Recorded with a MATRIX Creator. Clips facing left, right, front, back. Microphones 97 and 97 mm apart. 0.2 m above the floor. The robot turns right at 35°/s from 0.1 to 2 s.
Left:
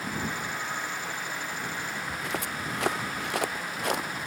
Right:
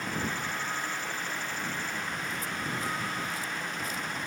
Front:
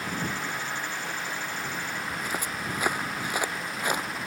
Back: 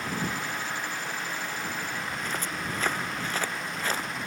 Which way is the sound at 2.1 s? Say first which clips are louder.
Left 2 dB, front 1 dB; 80° left.